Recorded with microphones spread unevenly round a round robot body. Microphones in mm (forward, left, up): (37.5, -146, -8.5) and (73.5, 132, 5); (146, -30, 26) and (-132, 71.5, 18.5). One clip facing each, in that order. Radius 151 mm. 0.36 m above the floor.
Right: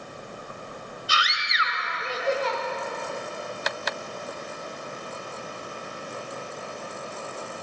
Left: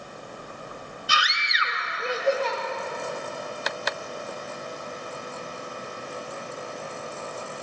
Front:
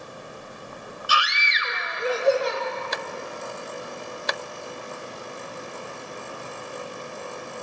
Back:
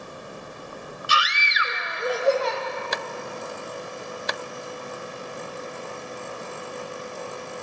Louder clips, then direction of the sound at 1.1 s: Left 1 dB, even; 105° left.